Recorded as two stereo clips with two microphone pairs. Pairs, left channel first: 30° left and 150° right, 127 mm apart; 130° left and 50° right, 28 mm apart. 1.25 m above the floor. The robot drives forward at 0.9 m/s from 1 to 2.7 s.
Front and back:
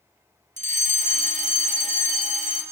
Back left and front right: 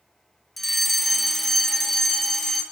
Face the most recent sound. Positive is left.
turn(degrees=-160)